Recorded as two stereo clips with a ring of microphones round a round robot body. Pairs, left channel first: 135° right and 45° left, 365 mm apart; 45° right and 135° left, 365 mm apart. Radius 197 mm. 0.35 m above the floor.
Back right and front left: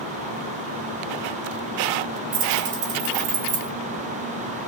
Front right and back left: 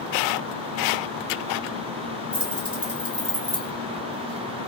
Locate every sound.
2.3 s keys jangling: 50° left, 1.9 m